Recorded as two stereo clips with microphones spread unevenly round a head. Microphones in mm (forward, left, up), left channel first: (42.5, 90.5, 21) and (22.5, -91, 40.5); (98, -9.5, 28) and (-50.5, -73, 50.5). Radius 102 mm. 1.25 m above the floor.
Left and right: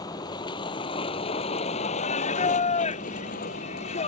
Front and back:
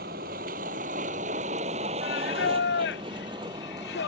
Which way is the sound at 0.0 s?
155° left.